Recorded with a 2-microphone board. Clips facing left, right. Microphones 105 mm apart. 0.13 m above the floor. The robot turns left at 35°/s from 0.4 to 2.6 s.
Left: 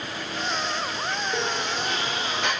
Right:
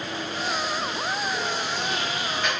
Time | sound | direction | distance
1.3 | a sliding door | 115° left | 7 m